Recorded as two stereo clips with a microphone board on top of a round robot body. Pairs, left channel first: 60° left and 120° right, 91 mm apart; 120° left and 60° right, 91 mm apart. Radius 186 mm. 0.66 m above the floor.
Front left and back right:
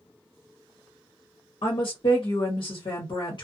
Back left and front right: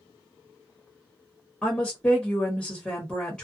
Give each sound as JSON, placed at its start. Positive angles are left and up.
{"t": 1.6, "sound": "a woman speaking", "azimuth_deg": 40, "distance_m": 1.2}